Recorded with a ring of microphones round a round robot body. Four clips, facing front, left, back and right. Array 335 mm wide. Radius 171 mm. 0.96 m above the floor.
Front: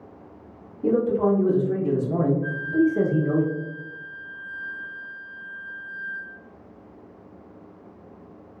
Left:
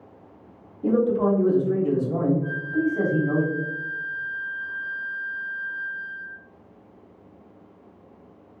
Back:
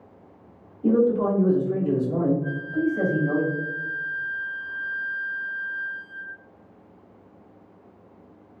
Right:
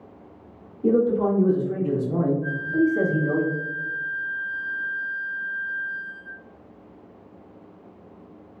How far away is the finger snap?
No finger snap in this recording.